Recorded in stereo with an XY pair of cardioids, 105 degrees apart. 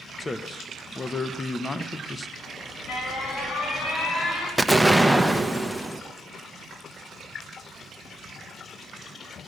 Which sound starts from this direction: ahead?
An explosion, at 4.6 s.